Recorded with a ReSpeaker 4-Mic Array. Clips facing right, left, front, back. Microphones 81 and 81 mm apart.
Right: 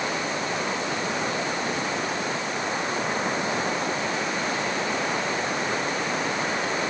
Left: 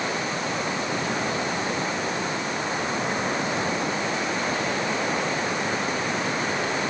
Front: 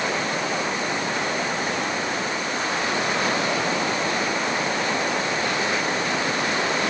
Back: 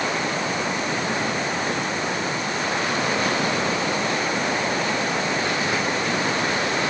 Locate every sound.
Only background noise.